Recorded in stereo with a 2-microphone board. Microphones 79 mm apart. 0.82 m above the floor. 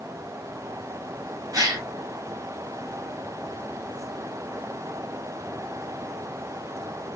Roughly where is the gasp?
Right.